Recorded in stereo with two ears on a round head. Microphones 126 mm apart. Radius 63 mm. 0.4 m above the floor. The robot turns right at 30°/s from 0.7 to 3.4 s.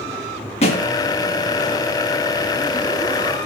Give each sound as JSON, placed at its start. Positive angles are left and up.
{"t": 0.6, "sound": "a thud", "side_deg": 45, "distance_m": 5.0}